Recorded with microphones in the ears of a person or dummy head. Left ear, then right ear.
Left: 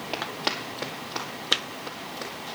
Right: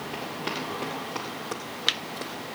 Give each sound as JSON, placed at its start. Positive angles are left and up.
{"t": 0.1, "sound": "running footsteps", "side_deg": 25, "distance_m": 1.9}